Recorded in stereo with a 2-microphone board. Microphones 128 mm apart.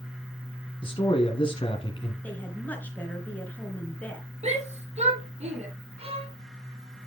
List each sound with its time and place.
0.8 s a man speaking: 45° left (ahead or behind), 1.4 m
2.2 s a woman speaking: 15° left (ahead or behind), 3 m
4.4 s a shout: 60° right (ahead or behind), 5 m
6.0 s a violin: 50° right (ahead or behind), 1.4 m